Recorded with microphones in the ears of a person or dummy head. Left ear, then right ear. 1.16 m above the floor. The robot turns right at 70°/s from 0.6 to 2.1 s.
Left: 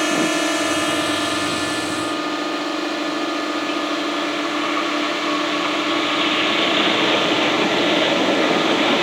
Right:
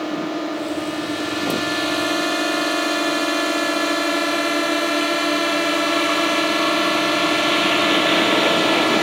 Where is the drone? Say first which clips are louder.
Left 6 dB; 55° left (ahead or behind); by 9.0 s 25° right (ahead or behind).